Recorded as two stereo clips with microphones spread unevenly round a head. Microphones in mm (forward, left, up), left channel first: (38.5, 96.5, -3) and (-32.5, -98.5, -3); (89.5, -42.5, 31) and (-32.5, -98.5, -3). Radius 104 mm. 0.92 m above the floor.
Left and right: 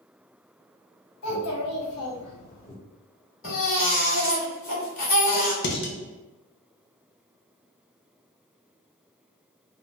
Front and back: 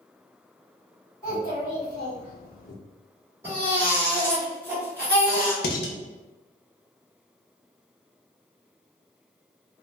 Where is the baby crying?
125° left, 1.4 m.